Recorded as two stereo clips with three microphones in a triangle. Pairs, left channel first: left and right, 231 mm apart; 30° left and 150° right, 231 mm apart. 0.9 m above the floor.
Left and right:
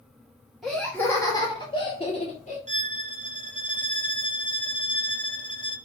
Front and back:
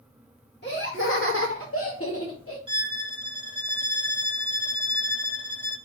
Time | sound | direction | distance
0.6 | laughter | straight ahead | 1.7 m
2.7 | a violin | 105° right | 0.8 m